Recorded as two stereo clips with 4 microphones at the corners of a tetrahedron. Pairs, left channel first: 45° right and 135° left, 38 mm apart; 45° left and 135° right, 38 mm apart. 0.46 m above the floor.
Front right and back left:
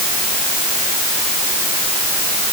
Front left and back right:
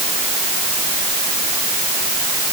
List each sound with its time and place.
Only background noise.